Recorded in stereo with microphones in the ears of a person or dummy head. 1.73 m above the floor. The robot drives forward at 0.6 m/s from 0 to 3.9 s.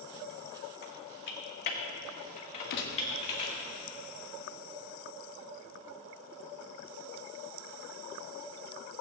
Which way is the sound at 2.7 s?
65° left (ahead or behind).